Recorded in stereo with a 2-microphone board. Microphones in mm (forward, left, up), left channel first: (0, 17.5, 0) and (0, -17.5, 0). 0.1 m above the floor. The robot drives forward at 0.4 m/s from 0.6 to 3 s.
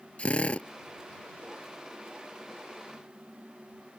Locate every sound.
0.2 s a drill: 35° left (ahead or behind)